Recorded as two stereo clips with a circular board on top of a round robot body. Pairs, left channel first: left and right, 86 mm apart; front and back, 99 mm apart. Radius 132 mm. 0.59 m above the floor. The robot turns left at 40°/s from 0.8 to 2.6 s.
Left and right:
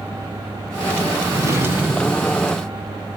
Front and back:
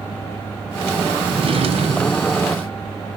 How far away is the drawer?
About 2 m.